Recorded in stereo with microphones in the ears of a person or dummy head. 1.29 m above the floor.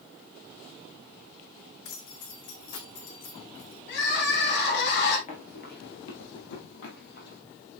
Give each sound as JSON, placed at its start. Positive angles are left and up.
{"t": 1.9, "sound": "keys jangling", "side_deg": 65, "distance_m": 2.0}
{"t": 3.9, "sound": "crying", "side_deg": 70, "distance_m": 3.0}
{"t": 5.3, "sound": "running footsteps", "side_deg": 35, "distance_m": 1.7}